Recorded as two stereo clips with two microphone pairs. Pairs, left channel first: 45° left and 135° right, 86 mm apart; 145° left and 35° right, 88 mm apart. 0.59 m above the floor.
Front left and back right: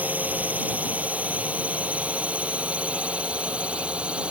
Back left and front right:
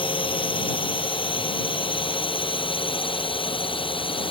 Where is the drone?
155° left; by 4.3 s 150° left.